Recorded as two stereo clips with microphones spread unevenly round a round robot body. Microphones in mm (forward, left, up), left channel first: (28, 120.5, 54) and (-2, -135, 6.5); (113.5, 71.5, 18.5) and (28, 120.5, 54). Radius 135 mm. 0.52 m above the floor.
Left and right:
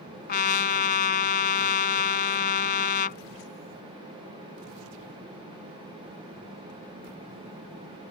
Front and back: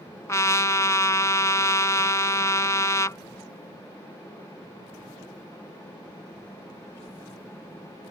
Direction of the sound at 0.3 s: 30° left.